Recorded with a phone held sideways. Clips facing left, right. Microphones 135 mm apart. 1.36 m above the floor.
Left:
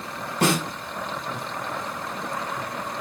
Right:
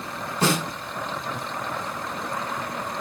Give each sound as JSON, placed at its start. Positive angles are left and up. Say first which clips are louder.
{"t": 0.4, "sound": "a snare drum", "louder": "left 1 dB", "side_deg": 60, "distance_m": 3.5}